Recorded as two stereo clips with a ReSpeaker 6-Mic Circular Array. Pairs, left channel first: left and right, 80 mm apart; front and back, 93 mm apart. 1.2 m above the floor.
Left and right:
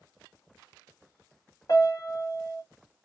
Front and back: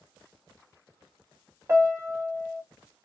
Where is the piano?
125° left, 1.1 m.